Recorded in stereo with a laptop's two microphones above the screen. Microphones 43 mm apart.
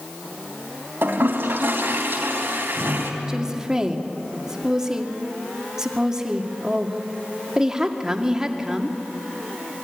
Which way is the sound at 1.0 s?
65° right (ahead or behind).